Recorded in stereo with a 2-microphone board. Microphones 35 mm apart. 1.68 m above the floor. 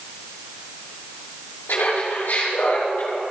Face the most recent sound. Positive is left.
turn(degrees=55)  # may be behind; listen again after turning